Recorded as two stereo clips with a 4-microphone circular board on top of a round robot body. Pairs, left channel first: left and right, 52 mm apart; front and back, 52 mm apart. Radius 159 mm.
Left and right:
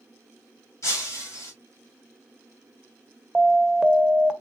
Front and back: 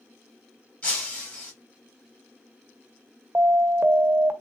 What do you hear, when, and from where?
0.8 s breaking glass: 65° left, 2 m
3.4 s an alarm: 165° right, 0.7 m